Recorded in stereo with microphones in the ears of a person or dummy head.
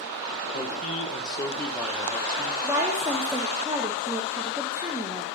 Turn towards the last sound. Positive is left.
turn(degrees=-10)  # may be behind; listen again after turning